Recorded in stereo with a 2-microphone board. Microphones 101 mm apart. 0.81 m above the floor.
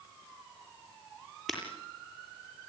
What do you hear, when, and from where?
1.5 s breaking glass: centre (ahead or behind), 7.5 m